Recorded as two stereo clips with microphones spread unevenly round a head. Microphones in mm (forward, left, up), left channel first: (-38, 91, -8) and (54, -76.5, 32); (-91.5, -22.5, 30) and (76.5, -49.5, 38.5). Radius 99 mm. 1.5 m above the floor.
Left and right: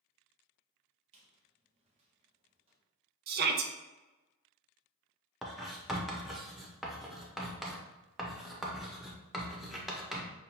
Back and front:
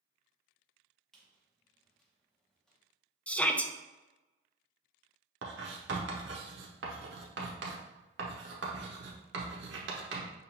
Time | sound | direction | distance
1.1 | a squeak | 100° right | 0.8 m
3.3 | a shout | 105° right | 0.5 m
5.4 | writing | 25° left | 0.7 m